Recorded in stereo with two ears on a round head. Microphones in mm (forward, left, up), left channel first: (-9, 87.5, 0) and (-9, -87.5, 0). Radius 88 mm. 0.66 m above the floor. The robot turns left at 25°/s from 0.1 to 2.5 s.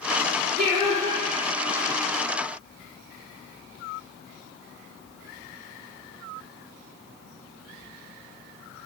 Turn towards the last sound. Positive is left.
turn(degrees=180)